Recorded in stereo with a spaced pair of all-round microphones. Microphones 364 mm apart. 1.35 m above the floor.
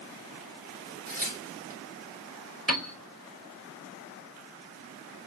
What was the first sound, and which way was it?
Tearing paper, 25° right (ahead or behind).